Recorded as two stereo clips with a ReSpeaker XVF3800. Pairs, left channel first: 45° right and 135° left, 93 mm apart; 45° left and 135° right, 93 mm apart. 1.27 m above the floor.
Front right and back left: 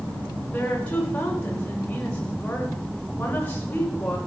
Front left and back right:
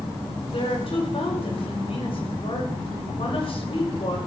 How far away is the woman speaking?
About 6 m.